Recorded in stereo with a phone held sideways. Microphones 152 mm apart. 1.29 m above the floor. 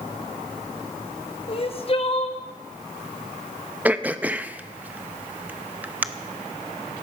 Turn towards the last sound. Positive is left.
turn(degrees=-10)  # may be behind; listen again after turning